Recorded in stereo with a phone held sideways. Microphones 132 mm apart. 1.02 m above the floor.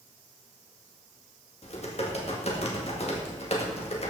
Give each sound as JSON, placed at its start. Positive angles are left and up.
{"t": 1.6, "sound": "typing on a keyboard", "side_deg": 50, "distance_m": 2.0}